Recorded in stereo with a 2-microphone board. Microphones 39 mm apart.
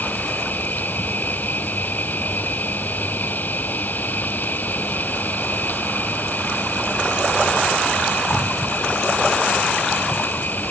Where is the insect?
55° left (ahead or behind).